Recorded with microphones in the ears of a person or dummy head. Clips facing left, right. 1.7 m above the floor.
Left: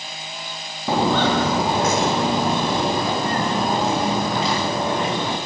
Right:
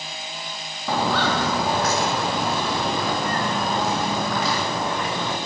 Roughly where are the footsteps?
Centre.